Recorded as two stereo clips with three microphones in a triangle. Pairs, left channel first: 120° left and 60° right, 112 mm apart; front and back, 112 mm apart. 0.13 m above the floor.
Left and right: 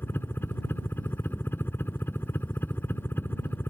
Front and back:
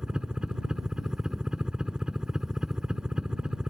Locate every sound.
0.0 s a helicopter: 110° left